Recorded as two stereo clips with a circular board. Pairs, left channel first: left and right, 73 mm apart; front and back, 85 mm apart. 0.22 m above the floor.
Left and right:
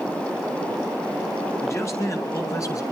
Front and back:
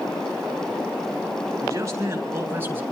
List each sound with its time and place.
1.6 s a man speaking: 135° left, 3.5 m; by 2.8 s 120° left, 3 m